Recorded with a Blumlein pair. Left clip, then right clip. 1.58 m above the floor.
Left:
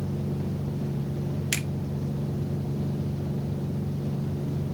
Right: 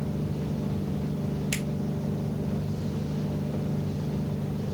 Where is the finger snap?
70° left, 5 m.